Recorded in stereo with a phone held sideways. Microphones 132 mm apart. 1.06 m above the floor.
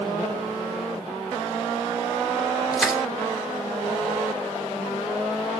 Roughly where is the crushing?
Centre.